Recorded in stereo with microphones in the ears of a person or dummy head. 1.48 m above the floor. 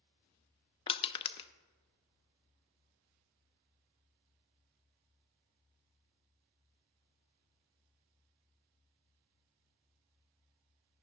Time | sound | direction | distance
0.9 | crushing | 30° left (ahead or behind) | 0.5 m